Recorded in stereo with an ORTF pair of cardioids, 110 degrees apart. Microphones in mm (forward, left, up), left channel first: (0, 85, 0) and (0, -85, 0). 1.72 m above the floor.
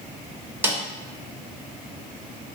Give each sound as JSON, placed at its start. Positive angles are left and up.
{"t": 0.6, "sound": "a snare drum", "azimuth_deg": -10, "distance_m": 0.6}